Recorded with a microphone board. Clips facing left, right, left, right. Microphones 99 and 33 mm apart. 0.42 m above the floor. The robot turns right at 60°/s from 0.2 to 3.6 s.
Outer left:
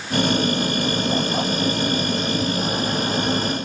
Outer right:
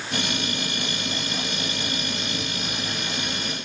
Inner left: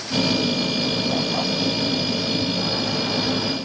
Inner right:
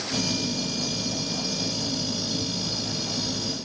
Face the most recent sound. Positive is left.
No sound to turn to.